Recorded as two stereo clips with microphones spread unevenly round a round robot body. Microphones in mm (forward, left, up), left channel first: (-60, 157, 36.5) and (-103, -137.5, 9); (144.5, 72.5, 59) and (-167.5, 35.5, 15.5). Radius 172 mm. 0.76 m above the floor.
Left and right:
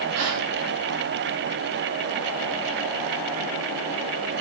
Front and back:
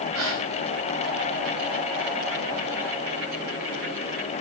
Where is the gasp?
130° right, 7.5 m.